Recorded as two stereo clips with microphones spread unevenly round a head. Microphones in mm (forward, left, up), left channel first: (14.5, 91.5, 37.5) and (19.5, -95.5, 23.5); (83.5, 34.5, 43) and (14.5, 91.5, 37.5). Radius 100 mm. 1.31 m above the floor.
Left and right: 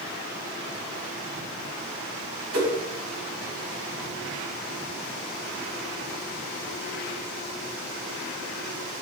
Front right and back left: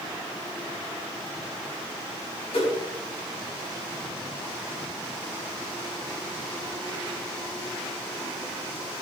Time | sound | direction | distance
2.5 | a whoosh | 80° right | 4.5 m